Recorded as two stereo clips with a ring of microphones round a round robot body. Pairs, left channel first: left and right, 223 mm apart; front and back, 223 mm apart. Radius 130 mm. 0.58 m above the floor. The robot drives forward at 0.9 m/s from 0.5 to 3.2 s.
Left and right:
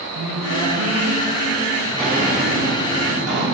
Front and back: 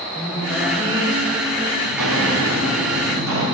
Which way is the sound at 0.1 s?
105° right.